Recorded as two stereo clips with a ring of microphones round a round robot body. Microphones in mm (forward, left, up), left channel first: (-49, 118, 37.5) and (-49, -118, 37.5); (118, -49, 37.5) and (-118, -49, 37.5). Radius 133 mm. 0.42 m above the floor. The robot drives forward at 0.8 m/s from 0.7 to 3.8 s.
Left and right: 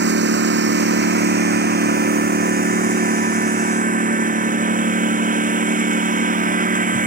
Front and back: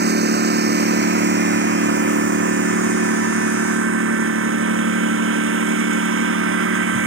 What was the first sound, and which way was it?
A lawn mower, 135° right.